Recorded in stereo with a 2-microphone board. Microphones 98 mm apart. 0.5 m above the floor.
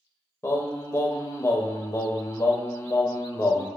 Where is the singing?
30° left (ahead or behind), 0.6 m.